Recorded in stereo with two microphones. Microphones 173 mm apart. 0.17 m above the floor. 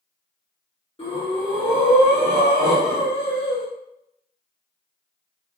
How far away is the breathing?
About 1.6 m.